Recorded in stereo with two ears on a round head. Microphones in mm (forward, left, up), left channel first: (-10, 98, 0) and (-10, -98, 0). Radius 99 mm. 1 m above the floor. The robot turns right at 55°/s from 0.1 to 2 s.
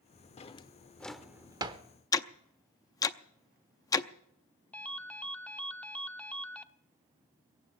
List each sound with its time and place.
0.4 s a drawer: 30° left (ahead or behind), 0.8 m; by 1.8 s 25° right (ahead or behind), 0.8 m
2.1 s ticking: 15° left (ahead or behind), 0.6 m
4.7 s a ringtone: 5° left (ahead or behind), 0.6 m